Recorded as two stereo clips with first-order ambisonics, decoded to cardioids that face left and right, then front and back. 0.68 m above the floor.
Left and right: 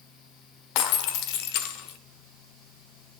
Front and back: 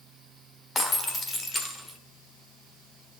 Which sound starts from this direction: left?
Breaking glass, at 0.8 s.